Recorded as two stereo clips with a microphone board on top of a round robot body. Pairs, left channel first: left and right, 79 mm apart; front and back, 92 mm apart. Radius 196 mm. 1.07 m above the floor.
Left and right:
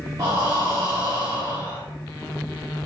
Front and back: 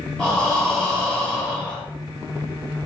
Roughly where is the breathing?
Right.